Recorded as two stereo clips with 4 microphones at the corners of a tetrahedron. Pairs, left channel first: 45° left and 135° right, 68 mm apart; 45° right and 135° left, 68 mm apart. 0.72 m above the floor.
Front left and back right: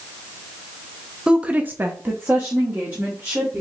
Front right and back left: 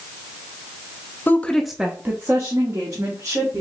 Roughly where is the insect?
No insect in this recording.